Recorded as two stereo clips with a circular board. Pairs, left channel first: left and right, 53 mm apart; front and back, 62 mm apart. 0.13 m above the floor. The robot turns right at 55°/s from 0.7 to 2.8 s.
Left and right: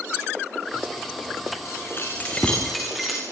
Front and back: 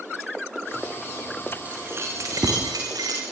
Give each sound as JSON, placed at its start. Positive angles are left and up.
{"t": 1.6, "sound": "keys jangling", "azimuth_deg": 115, "distance_m": 7.5}